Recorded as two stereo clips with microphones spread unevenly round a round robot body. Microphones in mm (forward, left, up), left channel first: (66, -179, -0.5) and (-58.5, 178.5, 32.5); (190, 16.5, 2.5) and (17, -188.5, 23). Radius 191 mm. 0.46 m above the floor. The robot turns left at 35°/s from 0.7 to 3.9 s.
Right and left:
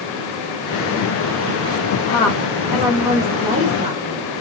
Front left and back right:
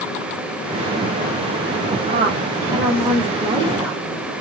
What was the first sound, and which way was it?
A woman speaking, 130° right.